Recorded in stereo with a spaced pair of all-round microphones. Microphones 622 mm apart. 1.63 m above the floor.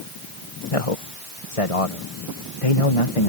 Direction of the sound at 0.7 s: 60° left (ahead or behind).